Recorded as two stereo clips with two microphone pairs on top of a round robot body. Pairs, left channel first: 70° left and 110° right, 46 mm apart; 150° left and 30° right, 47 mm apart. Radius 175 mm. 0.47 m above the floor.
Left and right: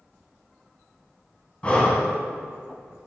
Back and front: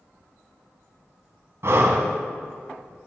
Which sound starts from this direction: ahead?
Breathing, at 1.6 s.